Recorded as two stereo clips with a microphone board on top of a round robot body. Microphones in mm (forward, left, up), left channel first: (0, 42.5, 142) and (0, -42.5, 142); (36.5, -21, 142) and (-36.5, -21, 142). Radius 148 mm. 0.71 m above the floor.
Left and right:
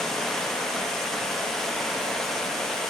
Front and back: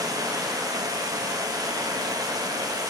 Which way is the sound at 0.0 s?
175° left.